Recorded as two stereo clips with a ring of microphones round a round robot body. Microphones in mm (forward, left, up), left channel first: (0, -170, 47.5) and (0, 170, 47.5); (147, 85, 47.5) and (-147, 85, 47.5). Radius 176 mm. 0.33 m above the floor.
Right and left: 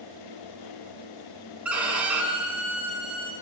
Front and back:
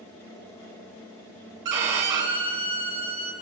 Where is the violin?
175° left, 0.7 m.